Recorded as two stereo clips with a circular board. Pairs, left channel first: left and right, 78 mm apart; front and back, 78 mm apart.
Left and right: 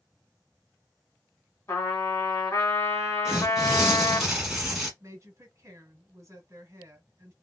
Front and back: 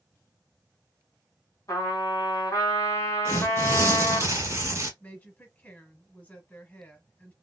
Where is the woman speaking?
55° right, 1.2 m.